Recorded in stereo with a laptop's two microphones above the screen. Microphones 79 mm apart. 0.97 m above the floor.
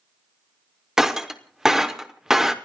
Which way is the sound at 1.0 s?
5° right (ahead or behind).